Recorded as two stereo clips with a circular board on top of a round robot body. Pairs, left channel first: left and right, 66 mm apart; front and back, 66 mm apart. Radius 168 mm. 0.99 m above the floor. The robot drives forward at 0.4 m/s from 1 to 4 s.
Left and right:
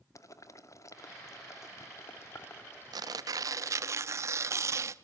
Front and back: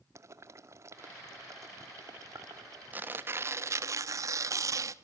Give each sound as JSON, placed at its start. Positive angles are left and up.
{"t": 0.1, "sound": "boiling", "azimuth_deg": 130, "distance_m": 2.0}
{"t": 2.9, "sound": "tearing paper", "azimuth_deg": -115, "distance_m": 0.7}